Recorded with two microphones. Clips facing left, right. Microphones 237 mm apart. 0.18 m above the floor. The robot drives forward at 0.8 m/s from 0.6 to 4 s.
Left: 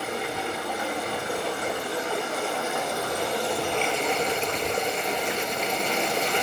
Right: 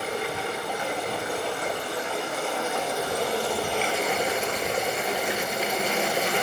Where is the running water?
Centre (ahead or behind), 3.5 m; by 6.4 s 5° right (ahead or behind), 0.8 m.